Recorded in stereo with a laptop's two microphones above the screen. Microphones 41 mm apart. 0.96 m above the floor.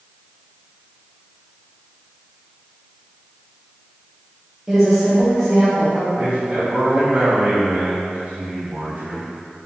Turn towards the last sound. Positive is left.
turn(degrees=-50)  # may be behind; listen again after turning